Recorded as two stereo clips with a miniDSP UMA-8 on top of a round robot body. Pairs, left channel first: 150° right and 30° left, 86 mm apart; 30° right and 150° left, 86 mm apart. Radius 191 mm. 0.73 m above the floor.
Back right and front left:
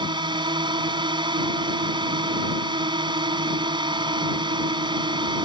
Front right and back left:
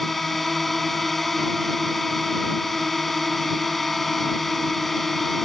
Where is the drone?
60° left.